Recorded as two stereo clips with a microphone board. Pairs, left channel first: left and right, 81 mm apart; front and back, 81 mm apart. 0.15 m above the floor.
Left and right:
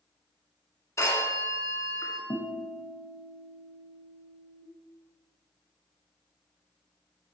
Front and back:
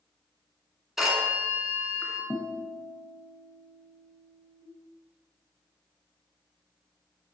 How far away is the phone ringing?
About 1.2 m.